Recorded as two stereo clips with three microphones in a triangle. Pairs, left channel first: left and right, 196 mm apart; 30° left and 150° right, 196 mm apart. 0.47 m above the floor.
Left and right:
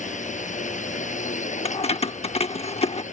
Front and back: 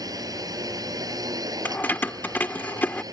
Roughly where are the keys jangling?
Left.